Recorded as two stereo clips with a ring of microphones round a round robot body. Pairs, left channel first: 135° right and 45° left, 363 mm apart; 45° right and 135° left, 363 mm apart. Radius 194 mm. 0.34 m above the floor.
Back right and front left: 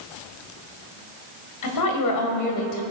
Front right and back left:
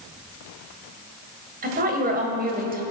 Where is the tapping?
No tapping in this recording.